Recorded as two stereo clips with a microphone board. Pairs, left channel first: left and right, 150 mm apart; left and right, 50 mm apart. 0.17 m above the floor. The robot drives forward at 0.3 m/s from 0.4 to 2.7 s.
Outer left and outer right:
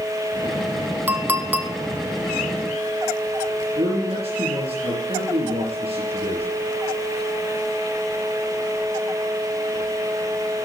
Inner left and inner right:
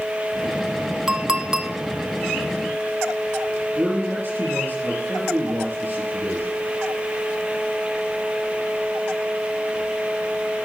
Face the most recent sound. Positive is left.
turn(degrees=-40)  # may be behind; listen again after turning